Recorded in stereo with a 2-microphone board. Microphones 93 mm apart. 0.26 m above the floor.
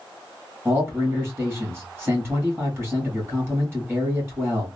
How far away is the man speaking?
About 1.8 m.